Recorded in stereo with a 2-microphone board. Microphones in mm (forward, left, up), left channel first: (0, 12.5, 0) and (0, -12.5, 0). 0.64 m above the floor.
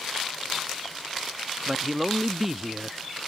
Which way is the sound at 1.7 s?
15° right (ahead or behind).